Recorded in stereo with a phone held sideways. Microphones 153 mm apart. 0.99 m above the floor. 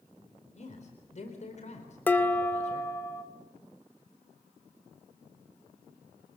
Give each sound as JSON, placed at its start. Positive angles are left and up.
{"t": 0.6, "sound": "a man speaking", "side_deg": 50, "distance_m": 4.0}
{"t": 2.1, "sound": "dishes clattering", "side_deg": 10, "distance_m": 1.9}